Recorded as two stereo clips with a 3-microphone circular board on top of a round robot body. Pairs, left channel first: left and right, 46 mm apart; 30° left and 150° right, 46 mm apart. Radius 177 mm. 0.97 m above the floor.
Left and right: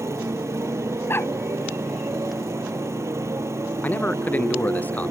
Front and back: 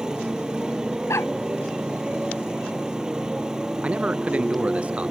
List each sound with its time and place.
0.0 s a motorcycle: 75° right
1.1 s a dog barking: 50° left
3.8 s a man speaking: 145° left